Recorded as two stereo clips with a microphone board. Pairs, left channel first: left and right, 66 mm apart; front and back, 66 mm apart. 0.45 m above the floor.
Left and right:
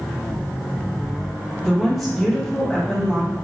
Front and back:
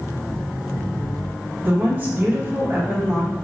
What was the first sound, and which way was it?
A woman speaking, 175° left.